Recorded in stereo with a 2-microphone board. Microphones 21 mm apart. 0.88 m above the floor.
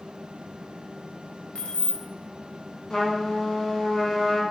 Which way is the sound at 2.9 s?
35° left (ahead or behind).